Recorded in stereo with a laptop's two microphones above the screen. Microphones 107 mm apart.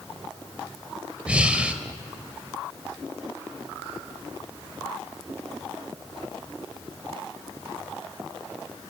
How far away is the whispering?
No whispering in this recording.